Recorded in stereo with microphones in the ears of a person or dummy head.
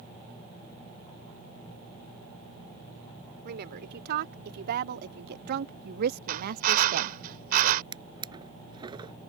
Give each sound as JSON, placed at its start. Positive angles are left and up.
{"t": 3.5, "sound": "a woman speaking", "side_deg": -60}
{"t": 6.3, "sound": "a drill", "side_deg": -50}
{"t": 7.9, "sound": "a drawer", "side_deg": -25}